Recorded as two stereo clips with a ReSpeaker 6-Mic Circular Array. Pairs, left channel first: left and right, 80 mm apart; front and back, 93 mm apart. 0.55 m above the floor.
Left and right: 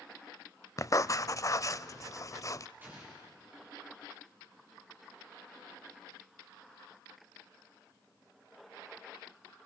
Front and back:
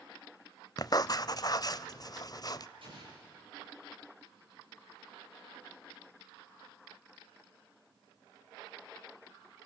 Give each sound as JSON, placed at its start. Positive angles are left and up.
{"t": 0.8, "sound": "writing", "azimuth_deg": 45, "distance_m": 0.6}
{"t": 2.8, "sound": "an explosion", "azimuth_deg": -155, "distance_m": 9.0}